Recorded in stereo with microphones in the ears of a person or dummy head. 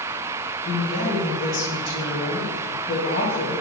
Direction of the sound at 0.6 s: 60° left (ahead or behind).